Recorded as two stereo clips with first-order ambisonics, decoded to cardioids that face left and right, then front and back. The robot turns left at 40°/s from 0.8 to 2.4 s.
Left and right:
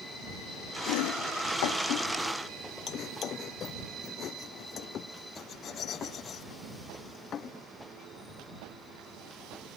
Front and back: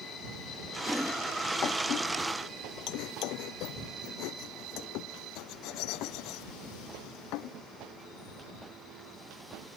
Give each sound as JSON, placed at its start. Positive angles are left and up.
{"t": 0.9, "sound": "chopping", "azimuth_deg": 95}